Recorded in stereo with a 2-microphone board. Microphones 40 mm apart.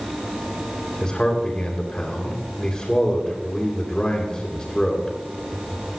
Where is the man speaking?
20° left (ahead or behind), 2.5 m.